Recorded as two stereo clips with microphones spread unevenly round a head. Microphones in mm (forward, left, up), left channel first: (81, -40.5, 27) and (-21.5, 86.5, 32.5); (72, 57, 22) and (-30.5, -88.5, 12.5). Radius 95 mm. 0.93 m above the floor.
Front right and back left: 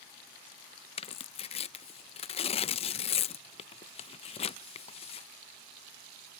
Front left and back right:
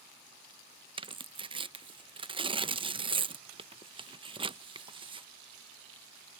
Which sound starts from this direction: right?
Tearing paper, at 1.0 s.